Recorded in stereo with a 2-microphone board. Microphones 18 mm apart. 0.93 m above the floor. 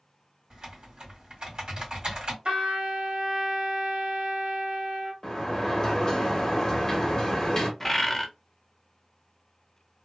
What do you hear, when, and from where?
0.5 s typing on a keyboard: 60° right (ahead or behind), 1.8 m
2.5 s a trumpet: 75° right (ahead or behind), 1.3 m
5.2 s a sliding door: 25° left (ahead or behind), 1.0 m
7.8 s a bird: 10° left (ahead or behind), 0.5 m